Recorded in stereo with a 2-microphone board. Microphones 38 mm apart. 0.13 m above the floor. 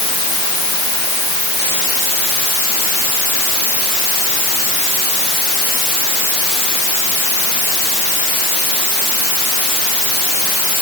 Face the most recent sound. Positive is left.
No sound to turn to.